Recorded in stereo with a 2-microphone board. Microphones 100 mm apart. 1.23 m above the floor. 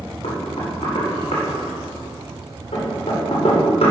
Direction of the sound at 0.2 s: 80° left.